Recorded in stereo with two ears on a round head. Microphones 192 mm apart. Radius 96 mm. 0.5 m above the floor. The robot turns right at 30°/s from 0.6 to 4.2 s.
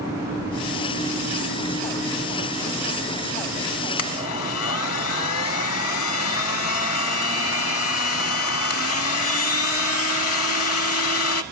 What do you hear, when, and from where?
4.0 s a blender: 75° left (ahead or behind), 0.8 m